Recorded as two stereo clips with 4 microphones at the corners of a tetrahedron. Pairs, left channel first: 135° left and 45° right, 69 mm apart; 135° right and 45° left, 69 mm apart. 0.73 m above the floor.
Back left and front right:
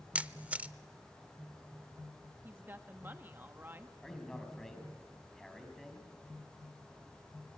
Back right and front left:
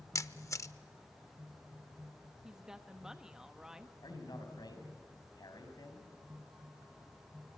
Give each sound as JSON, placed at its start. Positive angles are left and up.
{"t": 0.1, "sound": "a camera shutter", "azimuth_deg": -110, "distance_m": 0.5}
{"t": 2.4, "sound": "a woman speaking", "azimuth_deg": -30, "distance_m": 1.1}
{"t": 4.0, "sound": "a man speaking", "azimuth_deg": -140, "distance_m": 5.0}